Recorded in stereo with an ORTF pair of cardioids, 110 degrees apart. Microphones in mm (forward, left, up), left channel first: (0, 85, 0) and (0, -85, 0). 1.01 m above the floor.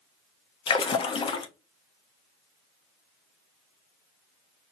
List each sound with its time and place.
0.7 s a splash: 30° left, 0.8 m